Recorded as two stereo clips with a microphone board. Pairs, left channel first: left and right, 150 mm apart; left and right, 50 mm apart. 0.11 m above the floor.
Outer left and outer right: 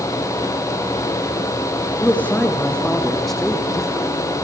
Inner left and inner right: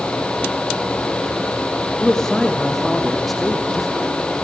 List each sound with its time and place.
2.0 s a man speaking: 10° left (ahead or behind), 5 m; by 4.1 s 5° right (ahead or behind), 5 m